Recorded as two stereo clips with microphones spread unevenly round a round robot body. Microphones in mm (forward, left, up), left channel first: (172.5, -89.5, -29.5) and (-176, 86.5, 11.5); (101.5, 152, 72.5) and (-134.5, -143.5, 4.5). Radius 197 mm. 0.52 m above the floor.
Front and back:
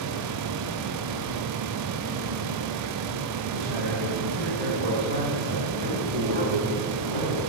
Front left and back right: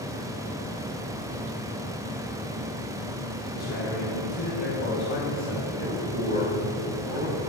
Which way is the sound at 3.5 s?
105° left.